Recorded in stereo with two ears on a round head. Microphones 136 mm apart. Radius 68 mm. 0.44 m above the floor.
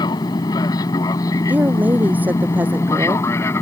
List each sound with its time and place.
0.0 s an aircraft: 25° left (ahead or behind); by 3.6 s 15° left (ahead or behind)
1.5 s a woman speaking: 10° right (ahead or behind)